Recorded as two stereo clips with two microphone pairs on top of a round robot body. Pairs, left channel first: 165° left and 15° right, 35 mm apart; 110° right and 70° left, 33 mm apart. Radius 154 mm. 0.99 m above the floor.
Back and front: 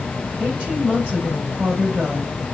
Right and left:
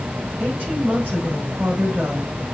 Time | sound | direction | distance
0.4 | a woman speaking | 45° left | 6 m